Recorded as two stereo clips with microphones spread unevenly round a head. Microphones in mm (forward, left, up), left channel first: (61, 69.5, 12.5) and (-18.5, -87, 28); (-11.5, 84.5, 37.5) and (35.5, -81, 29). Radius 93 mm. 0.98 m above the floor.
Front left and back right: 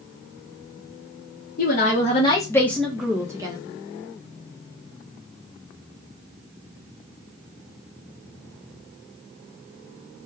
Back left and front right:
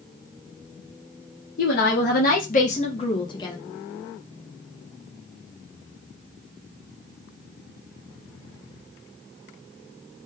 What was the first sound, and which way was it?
A woman speaking, 85° left.